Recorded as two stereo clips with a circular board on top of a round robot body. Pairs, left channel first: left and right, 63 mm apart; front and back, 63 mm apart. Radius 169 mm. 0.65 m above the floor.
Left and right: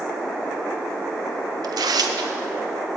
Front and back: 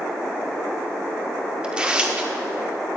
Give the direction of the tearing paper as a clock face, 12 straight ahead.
4 o'clock.